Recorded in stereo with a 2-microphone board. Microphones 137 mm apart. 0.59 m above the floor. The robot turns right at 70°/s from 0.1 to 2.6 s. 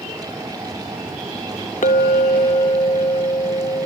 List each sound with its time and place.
1.8 s a clink: 90° left; by 3.9 s 145° left